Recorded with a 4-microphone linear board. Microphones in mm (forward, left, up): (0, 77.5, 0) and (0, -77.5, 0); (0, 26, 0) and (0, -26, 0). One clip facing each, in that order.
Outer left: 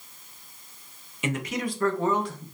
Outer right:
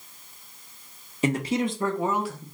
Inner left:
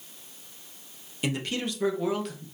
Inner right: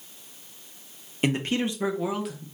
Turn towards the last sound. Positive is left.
turn(degrees=0)  # may be behind; listen again after turning